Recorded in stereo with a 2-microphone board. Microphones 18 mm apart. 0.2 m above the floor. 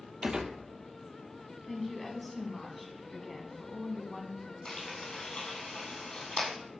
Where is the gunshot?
55° right (ahead or behind), 0.8 m.